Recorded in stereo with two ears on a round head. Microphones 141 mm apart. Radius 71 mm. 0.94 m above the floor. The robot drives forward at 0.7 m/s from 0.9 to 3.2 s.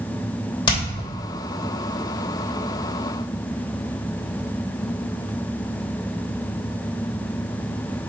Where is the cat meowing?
I don't hear a cat meowing.